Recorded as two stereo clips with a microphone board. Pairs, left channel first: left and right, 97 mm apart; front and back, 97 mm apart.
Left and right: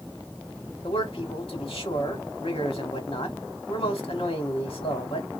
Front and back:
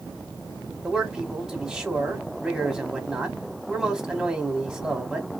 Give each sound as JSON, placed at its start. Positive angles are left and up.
{"t": 0.8, "sound": "a man speaking", "azimuth_deg": 95, "distance_m": 1.6}